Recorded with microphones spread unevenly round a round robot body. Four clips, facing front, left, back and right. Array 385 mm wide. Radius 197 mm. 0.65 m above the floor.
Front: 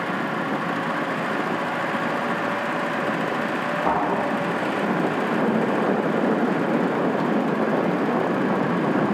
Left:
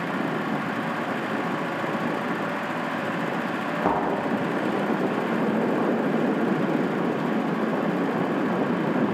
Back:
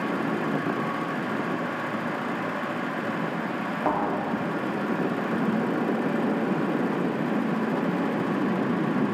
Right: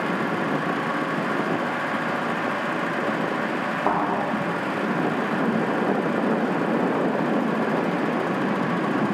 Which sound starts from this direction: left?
A thud, at 3.9 s.